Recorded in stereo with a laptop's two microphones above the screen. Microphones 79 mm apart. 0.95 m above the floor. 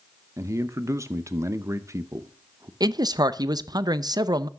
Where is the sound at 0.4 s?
35° right (ahead or behind), 0.7 m.